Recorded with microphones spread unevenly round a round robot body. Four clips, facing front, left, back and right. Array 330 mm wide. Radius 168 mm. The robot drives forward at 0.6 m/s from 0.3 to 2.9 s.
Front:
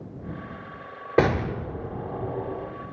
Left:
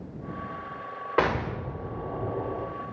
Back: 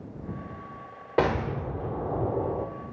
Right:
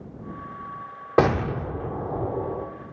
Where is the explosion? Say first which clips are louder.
Right 5 dB, front 3 dB; 50° right, 0.6 m; by 2.7 s 150° right, 0.8 m.